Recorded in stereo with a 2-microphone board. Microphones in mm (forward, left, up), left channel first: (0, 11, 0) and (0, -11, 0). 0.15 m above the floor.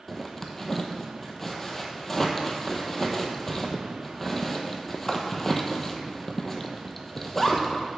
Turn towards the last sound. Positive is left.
turn(degrees=20)  # may be behind; listen again after turning